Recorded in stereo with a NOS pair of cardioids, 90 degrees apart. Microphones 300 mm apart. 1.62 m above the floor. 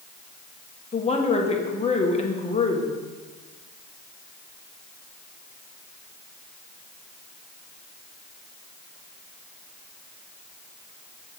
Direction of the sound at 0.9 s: 20° left.